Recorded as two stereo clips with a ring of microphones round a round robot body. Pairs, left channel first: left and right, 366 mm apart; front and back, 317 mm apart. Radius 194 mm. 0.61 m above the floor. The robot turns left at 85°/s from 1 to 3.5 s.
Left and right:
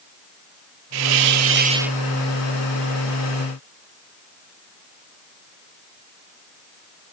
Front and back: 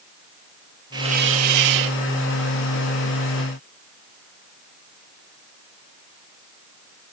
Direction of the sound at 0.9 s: 100° right.